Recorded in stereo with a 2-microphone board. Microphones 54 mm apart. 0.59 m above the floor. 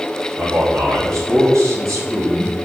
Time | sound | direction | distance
0.4 | a man speaking | 75° right (ahead or behind) | 3.5 m